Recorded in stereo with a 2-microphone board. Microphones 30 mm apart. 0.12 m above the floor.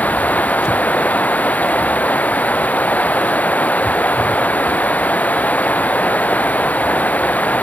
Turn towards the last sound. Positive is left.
turn(degrees=60)  # may be behind; listen again after turning